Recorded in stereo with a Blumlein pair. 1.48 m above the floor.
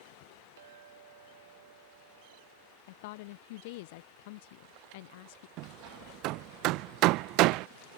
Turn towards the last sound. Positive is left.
turn(degrees=-40)